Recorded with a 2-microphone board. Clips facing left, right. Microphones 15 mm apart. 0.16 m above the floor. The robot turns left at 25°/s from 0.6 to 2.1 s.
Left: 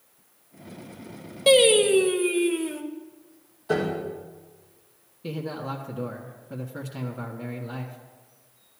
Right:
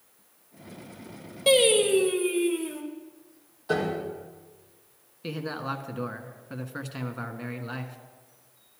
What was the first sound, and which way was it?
Singing, 10° left (ahead or behind).